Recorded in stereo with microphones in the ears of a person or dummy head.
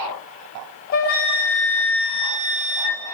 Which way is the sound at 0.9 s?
50° left (ahead or behind).